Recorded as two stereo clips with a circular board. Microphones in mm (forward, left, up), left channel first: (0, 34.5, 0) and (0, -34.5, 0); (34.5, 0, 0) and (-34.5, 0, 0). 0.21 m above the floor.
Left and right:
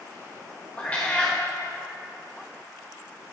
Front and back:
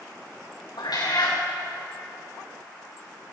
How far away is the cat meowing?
About 3 m.